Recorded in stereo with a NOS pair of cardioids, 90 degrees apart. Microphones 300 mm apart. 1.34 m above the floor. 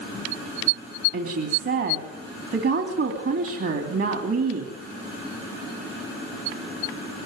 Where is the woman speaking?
50° right, 3 m.